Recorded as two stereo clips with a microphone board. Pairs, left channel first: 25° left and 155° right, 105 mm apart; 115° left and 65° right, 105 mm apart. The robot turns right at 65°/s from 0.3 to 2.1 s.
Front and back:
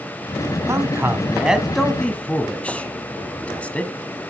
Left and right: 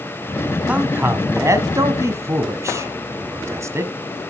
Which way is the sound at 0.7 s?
135° right.